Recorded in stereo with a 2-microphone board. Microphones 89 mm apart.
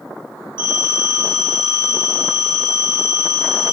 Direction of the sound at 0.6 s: 65° right (ahead or behind).